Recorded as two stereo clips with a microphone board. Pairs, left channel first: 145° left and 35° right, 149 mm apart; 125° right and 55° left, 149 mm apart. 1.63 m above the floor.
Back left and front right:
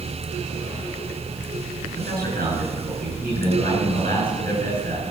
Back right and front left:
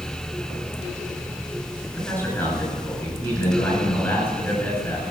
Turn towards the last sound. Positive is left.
turn(degrees=-45)